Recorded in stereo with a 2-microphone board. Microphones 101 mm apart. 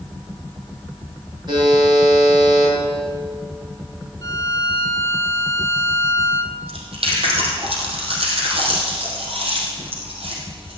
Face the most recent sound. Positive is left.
turn(degrees=-70)  # may be behind; listen again after turning